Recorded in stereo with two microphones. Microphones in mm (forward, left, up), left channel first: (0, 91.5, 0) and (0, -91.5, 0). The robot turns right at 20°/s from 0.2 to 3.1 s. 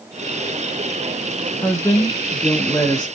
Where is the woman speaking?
15° left (ahead or behind), 1.7 m; by 3.1 s 25° left (ahead or behind), 1.7 m.